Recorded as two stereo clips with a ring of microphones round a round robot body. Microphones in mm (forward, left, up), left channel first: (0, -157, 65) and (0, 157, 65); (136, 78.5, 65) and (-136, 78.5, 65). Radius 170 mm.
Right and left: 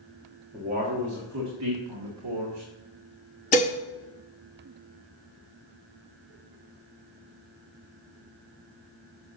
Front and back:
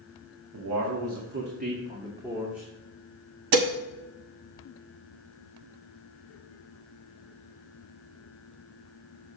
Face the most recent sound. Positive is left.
turn(degrees=-160)